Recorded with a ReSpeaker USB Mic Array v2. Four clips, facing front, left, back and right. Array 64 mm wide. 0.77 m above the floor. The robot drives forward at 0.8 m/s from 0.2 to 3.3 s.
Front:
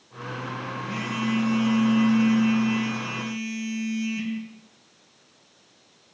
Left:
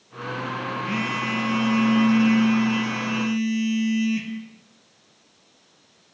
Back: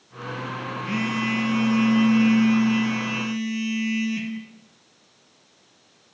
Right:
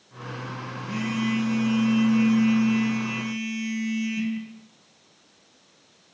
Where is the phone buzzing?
125° left, 6 m; by 4.3 s 135° left, 7.5 m.